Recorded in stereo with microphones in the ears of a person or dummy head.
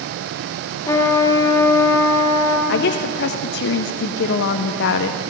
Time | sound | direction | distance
0.8 | a trumpet | 15° left (ahead or behind) | 2 m
2.7 | a woman speaking | 55° left (ahead or behind) | 0.6 m